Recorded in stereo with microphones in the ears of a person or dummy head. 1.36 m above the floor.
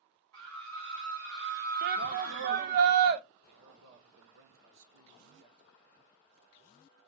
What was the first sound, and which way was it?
A scream, 75° right (ahead or behind).